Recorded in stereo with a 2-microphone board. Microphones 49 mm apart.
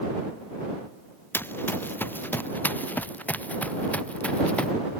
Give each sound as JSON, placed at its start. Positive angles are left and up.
{"t": 1.3, "sound": "running footsteps", "side_deg": 50}